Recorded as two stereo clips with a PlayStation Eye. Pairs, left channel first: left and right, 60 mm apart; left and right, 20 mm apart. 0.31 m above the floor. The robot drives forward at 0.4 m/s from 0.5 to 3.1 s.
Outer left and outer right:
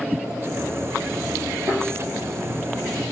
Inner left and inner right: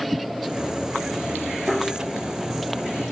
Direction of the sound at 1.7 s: 55° right (ahead or behind).